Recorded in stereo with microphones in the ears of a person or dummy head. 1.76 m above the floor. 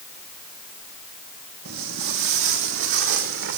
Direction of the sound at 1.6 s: 60° right (ahead or behind).